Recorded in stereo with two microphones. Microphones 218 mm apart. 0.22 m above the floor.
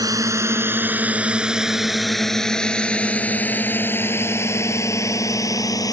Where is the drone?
15° right (ahead or behind); by 5.9 s 15° left (ahead or behind).